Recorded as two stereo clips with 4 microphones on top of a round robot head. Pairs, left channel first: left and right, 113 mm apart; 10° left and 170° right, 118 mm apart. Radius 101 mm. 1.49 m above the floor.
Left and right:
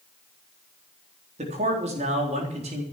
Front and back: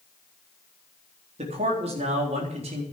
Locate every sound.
1.4 s a man speaking: 125° right, 4 m